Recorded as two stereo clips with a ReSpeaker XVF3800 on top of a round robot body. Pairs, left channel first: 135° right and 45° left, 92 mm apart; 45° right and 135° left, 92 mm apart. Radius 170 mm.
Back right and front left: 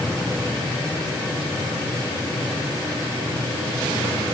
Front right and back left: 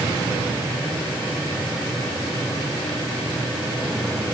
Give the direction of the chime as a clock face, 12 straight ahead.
No chime in this recording.